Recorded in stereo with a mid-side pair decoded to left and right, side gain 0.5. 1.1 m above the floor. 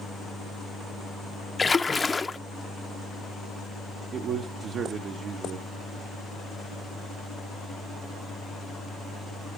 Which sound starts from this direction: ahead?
A splash, at 1.6 s.